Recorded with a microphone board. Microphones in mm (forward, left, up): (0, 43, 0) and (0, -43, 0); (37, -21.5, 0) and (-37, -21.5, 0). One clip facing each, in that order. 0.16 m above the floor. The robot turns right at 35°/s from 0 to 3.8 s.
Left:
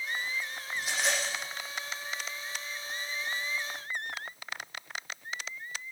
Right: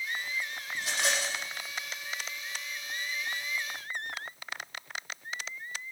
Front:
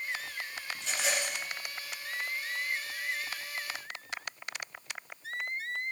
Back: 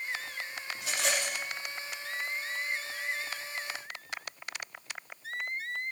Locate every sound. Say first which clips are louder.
0.8 s a rattle: even, back 1 dB; 95° right, 7 m; by 1.4 s 75° right, 7 m